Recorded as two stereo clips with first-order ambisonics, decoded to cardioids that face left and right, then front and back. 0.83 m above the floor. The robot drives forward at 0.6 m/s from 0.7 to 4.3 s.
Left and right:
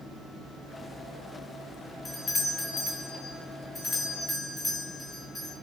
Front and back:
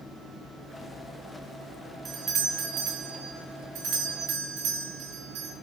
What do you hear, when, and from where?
2.0 s a doorbell: 150° left, 0.8 m; by 5.6 s 175° left, 1.9 m